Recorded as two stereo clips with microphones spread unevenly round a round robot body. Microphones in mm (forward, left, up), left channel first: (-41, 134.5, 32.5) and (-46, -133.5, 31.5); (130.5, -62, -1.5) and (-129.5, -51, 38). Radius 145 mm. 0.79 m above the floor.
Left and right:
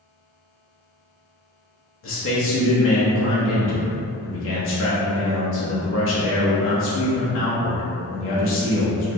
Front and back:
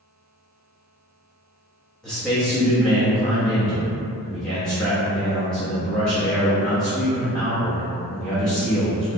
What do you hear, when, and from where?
2.0 s a man speaking: 75° left, 0.8 m